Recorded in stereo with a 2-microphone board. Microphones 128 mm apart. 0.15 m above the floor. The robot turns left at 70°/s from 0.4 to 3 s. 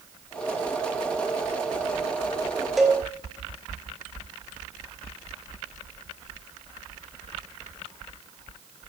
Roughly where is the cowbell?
Centre.